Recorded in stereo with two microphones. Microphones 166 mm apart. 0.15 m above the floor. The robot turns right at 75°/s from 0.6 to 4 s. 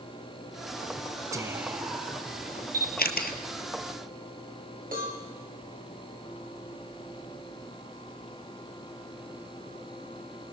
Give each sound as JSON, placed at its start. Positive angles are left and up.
{"t": 1.3, "sound": "whispering", "side_deg": -20, "distance_m": 1.8}
{"t": 2.7, "sound": "a camera shutter", "side_deg": 60, "distance_m": 1.5}
{"t": 4.9, "sound": "a cowbell", "side_deg": -60, "distance_m": 10.0}